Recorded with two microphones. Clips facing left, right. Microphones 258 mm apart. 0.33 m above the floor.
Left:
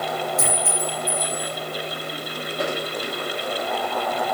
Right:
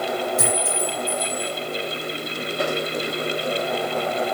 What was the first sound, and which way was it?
A clink, 70° right (ahead or behind).